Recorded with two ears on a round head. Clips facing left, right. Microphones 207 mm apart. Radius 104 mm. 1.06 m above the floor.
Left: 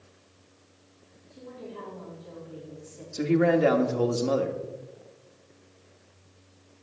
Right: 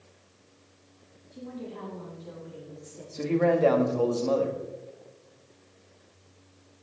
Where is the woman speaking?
55° right (ahead or behind), 4 m.